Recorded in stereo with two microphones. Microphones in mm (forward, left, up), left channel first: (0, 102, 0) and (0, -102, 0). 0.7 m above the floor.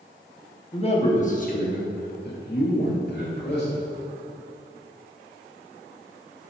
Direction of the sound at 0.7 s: 25° left (ahead or behind).